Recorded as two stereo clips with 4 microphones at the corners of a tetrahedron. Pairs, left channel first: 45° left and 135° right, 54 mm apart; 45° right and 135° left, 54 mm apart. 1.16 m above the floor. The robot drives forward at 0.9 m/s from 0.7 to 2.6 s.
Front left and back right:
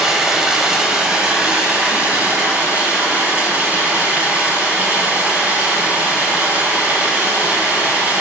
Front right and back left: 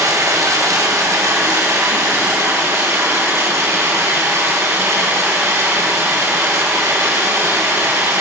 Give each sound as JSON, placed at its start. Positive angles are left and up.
{"t": 0.0, "sound": "running water", "azimuth_deg": 150, "distance_m": 2.5}